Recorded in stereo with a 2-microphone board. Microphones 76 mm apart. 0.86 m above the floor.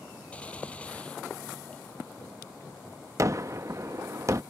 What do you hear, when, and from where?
0.3 s a gunshot: 15° left (ahead or behind)
3.2 s a gunshot: 45° right (ahead or behind)